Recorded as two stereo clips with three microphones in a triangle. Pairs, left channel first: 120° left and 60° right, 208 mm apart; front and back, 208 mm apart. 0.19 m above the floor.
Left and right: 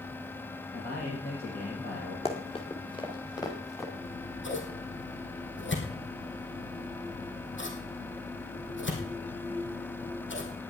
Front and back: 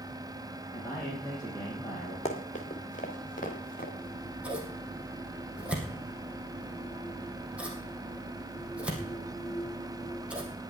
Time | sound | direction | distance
0.7 | a man speaking | 80° left | 5.5 m
2.2 | running footsteps | 55° left | 3 m
4.0 | scissors | 95° left | 3 m